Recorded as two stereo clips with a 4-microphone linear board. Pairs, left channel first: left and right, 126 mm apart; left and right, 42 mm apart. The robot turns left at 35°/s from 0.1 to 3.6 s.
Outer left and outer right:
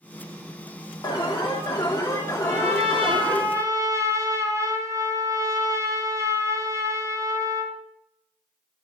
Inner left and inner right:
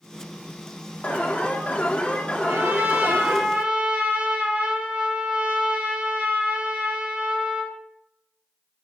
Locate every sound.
1.0 s an alarm: 100° left, 2 m; by 3.4 s 15° left, 2 m
2.4 s a trumpet: 110° right, 2.5 m; by 7.8 s 155° right, 2.5 m